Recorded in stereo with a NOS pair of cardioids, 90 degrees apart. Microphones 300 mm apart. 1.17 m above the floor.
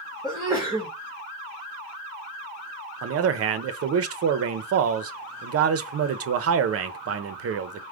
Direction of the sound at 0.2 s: 10° right.